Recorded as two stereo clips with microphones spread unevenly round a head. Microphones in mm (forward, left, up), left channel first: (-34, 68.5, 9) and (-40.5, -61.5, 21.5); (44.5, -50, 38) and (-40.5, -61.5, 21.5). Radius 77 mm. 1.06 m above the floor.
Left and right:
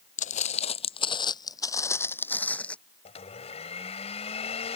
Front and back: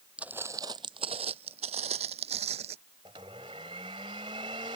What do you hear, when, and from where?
0.2 s footsteps: 100° left; by 2.8 s 170° left
3.0 s a blender: 130° left